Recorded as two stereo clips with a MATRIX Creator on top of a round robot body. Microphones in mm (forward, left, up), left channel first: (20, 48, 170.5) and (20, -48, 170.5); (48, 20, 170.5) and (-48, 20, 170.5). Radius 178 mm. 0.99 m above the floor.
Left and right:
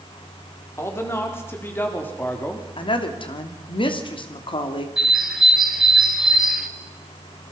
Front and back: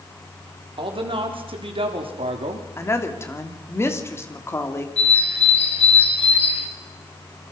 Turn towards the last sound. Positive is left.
turn(degrees=-5)